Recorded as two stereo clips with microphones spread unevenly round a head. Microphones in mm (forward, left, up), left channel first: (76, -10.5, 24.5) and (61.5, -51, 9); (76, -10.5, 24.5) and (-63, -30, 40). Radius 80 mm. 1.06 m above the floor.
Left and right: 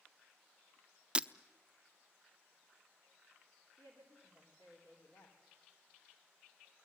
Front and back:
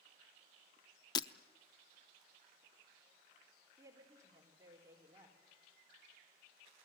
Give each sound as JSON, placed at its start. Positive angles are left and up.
{"t": 1.1, "sound": "breaking glass", "azimuth_deg": -25, "distance_m": 0.6}
{"t": 3.8, "sound": "a woman speaking", "azimuth_deg": 120, "distance_m": 4.0}